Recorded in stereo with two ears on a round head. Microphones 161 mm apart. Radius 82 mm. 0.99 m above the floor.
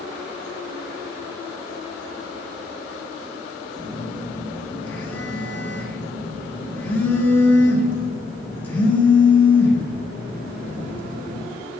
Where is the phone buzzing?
10° left (ahead or behind), 0.9 m.